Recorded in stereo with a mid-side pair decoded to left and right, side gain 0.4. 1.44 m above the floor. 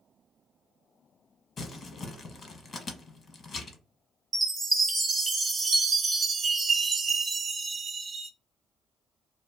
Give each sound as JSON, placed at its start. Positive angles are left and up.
{"t": 1.6, "sound": "crumpling", "azimuth_deg": 50, "distance_m": 1.1}
{"t": 4.3, "sound": "a chime", "azimuth_deg": -45, "distance_m": 0.9}